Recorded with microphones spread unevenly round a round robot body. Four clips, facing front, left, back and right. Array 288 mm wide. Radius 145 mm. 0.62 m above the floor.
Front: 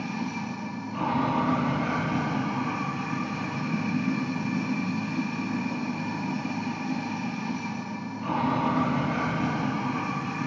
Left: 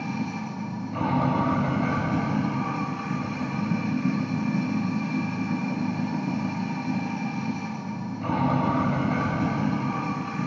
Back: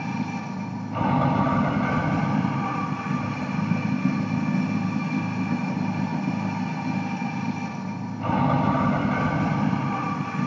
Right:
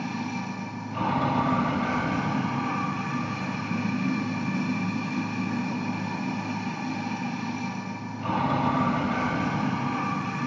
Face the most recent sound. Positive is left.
turn(degrees=165)